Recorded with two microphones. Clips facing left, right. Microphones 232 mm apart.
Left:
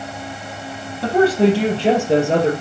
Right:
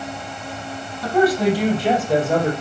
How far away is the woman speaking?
About 4 m.